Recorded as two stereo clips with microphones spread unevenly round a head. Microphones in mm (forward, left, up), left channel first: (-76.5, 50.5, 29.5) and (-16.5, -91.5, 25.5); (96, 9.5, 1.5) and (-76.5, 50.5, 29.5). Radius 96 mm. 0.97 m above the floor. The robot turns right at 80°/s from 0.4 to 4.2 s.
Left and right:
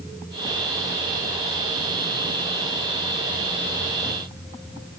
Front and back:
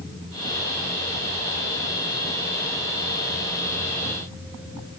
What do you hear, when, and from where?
Only background noise.